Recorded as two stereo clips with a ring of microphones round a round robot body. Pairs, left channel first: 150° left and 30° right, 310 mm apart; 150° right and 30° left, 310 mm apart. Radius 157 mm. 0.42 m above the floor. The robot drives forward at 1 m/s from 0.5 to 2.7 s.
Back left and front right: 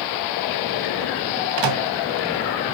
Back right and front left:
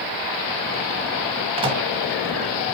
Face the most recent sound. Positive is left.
turn(degrees=-75)